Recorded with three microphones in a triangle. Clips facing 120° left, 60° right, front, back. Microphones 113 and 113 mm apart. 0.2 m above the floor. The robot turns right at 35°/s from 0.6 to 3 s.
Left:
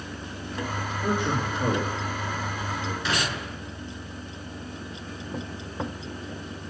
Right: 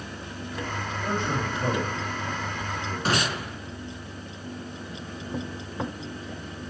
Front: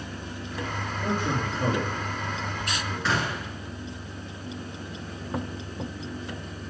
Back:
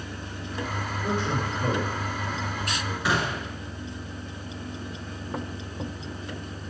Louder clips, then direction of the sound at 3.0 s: Right 5 dB, back 2 dB; 105° right.